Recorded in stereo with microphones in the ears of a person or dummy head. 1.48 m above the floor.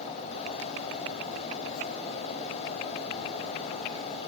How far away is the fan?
About 6.5 m.